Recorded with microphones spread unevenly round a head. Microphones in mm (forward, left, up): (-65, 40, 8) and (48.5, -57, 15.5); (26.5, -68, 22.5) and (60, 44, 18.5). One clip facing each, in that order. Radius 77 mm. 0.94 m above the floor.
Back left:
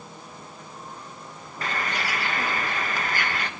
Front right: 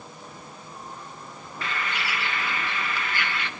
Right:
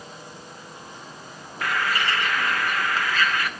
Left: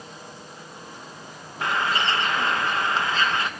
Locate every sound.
1.6 s a bird: 125° left, 1.0 m